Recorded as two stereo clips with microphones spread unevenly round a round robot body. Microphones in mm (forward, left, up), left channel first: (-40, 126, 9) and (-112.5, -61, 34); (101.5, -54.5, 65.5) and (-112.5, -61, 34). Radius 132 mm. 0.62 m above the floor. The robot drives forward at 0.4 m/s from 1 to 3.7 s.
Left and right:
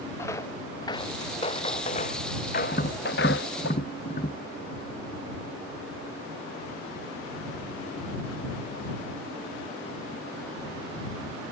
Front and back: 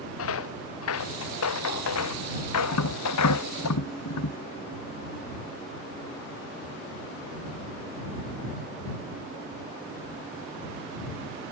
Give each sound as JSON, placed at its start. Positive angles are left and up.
{"t": 0.2, "sound": "footsteps", "azimuth_deg": -15}
{"t": 2.7, "sound": "tapping", "azimuth_deg": 5}